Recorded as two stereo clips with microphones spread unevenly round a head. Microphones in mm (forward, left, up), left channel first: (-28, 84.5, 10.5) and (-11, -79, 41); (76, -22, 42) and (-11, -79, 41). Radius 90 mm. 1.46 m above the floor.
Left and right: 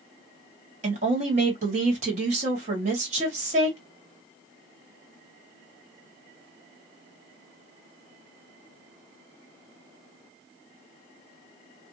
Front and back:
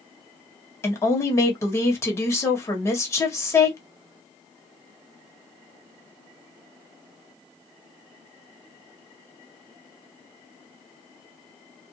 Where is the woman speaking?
30° right, 1.4 m.